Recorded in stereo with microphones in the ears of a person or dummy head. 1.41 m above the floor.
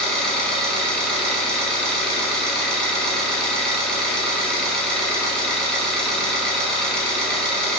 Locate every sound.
0.0 s an engine running: 5° left (ahead or behind), 0.9 m